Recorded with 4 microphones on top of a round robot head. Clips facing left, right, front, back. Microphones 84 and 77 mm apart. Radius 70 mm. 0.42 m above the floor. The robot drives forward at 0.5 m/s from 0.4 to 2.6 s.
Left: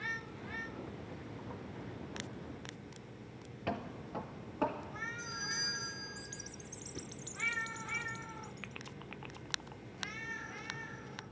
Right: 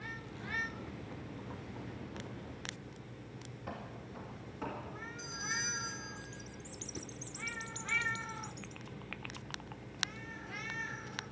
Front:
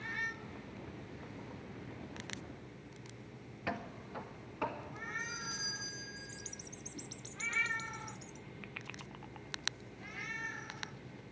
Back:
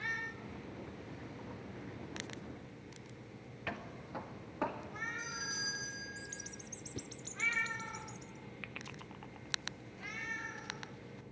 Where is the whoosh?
175° right, 0.6 m.